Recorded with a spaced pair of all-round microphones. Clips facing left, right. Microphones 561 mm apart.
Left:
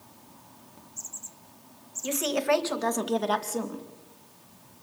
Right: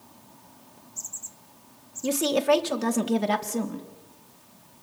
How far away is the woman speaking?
About 1.7 m.